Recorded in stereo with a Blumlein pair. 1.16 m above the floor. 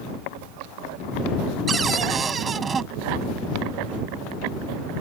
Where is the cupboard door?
20° right.